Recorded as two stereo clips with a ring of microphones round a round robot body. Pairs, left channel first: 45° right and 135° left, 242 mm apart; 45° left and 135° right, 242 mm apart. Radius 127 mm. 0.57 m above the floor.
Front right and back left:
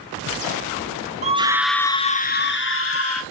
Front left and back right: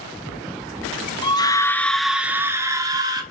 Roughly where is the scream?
Left.